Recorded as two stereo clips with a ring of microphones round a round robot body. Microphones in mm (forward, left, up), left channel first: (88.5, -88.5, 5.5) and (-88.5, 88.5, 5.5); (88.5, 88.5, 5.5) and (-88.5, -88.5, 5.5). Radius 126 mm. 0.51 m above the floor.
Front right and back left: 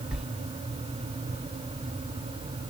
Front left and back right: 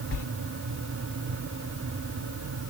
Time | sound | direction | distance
0.1 | a sliding door | 50° left | 1.0 m